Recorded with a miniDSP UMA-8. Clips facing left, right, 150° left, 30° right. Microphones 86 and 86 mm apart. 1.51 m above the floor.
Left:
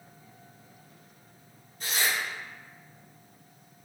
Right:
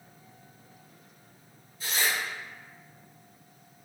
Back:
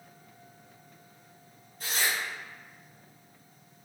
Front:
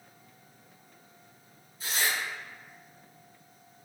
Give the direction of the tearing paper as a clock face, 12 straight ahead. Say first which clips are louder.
Even, even; 8 o'clock.